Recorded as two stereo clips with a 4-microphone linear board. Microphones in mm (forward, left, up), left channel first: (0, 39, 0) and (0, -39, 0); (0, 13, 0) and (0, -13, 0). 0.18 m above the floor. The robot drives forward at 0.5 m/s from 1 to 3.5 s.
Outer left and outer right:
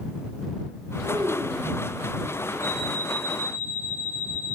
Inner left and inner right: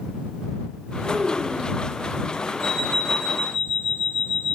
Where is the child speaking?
80° right, 8 m.